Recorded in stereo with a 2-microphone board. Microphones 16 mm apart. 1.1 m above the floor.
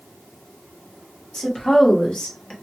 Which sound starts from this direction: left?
A woman speaking, at 1.3 s.